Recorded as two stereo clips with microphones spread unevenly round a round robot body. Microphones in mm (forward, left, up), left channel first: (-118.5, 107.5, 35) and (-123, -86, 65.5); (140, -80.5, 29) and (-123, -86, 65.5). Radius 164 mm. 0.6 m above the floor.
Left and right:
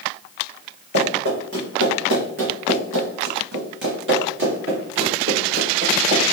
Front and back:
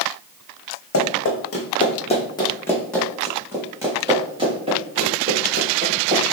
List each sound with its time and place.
0.9 s running footsteps: 35° right, 1.6 m; by 6.2 s 125° right, 3.5 m